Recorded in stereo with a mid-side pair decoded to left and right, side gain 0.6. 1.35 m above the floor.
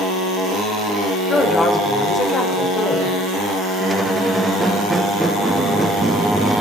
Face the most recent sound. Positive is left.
turn(degrees=-15)